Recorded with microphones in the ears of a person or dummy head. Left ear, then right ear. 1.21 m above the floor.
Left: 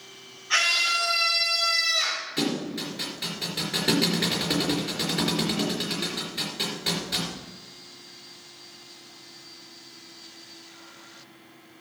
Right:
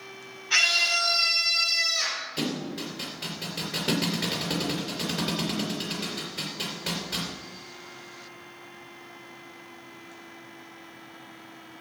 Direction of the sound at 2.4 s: 25° left (ahead or behind).